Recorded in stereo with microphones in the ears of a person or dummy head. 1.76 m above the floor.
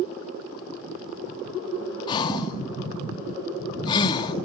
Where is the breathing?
30° left (ahead or behind), 1.9 m.